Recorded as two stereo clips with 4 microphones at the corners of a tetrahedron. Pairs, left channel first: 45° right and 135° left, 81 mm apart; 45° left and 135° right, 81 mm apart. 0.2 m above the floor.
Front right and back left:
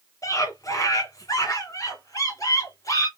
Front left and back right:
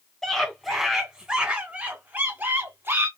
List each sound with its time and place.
0.2 s a scream: 40° right, 2 m; by 3.1 s 80° right, 2.5 m